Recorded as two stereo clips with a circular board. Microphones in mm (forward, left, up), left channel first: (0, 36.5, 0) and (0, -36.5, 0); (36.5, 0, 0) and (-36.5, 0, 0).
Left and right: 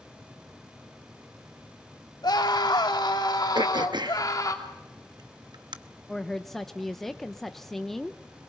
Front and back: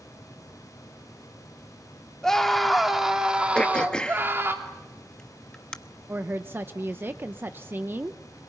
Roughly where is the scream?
Left.